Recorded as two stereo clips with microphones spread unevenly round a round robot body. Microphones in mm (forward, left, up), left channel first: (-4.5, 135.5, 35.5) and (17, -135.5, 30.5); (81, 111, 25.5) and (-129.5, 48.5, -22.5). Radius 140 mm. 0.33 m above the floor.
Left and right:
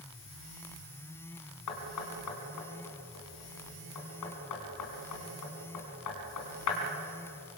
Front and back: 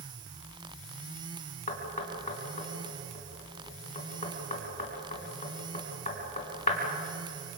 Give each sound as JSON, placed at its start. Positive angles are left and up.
{"t": 1.7, "sound": "knocking", "azimuth_deg": 75, "distance_m": 3.5}